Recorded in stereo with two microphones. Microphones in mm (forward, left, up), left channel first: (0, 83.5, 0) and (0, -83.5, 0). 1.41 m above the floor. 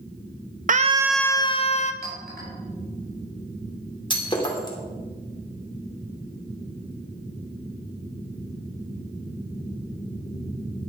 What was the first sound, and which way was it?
A scream, 55° right (ahead or behind).